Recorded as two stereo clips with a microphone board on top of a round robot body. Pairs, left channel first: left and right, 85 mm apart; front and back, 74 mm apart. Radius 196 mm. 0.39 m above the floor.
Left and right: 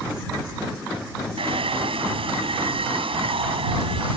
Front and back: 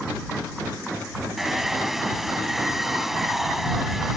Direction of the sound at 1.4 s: 95° right.